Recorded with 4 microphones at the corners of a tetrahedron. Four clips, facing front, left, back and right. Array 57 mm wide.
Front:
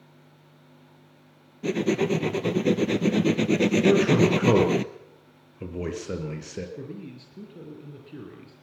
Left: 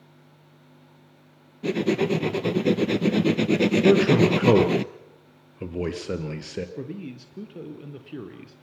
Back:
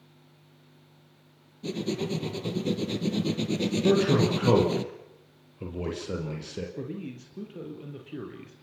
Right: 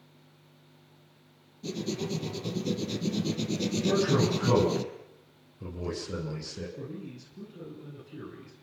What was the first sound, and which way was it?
Writing, 55° left.